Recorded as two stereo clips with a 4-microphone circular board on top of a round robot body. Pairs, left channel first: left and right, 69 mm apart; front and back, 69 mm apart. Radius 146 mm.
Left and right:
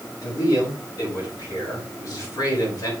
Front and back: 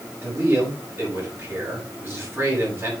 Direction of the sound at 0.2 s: 125° left.